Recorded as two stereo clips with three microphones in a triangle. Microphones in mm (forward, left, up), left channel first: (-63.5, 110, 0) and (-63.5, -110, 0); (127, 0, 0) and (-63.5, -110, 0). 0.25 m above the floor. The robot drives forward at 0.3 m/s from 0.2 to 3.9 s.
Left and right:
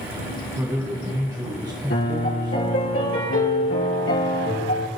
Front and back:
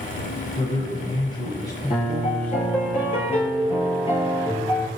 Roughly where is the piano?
Left.